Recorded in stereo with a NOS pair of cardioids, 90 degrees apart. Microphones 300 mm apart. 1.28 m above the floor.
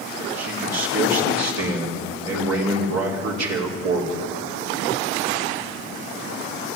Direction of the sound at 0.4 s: 60° right.